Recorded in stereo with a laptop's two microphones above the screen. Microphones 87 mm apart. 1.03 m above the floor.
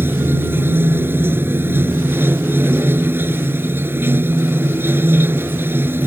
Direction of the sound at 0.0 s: 25° right (ahead or behind).